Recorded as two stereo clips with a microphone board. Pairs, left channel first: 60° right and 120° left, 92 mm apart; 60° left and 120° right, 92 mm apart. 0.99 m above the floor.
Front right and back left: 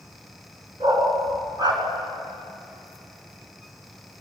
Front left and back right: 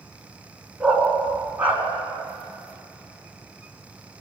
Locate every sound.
0.8 s a dog barking: 155° left, 5 m; by 1.8 s 165° left, 3.5 m